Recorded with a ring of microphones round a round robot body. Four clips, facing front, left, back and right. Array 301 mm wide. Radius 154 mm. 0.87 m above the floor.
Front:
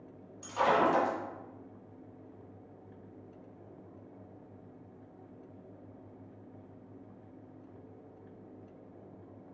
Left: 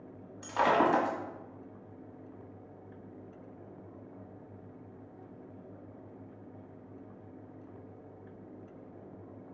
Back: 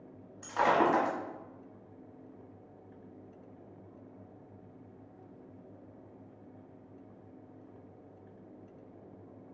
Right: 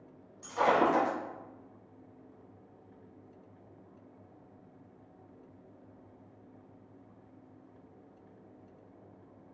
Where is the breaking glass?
105° left, 1.5 m.